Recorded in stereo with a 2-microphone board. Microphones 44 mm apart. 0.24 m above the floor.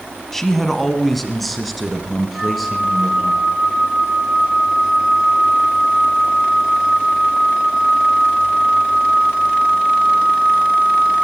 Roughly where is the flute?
Centre.